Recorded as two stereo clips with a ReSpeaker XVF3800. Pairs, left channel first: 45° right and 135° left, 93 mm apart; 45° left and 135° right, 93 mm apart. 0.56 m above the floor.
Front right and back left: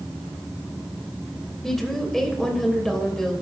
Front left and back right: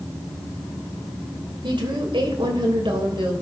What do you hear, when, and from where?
1.6 s a woman speaking: 130° right, 3 m